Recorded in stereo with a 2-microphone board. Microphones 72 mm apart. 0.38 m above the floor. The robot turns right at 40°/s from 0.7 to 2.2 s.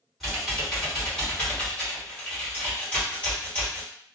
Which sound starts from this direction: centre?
Typing on a keyboard, at 0.2 s.